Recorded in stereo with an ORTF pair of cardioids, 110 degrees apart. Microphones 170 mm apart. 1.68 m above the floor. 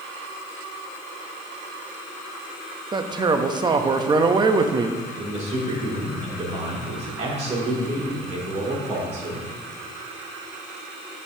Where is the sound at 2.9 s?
25° right, 0.7 m.